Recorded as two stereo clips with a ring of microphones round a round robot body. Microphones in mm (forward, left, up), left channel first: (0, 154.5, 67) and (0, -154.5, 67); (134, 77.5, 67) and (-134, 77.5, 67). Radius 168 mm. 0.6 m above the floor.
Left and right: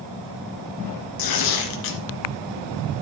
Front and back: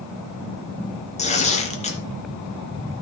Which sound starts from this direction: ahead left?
Tearing paper, at 1.2 s.